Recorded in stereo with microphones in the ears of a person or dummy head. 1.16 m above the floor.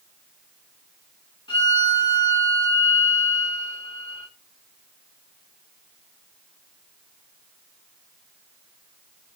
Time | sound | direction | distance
1.5 | a violin | 25° left (ahead or behind) | 2 m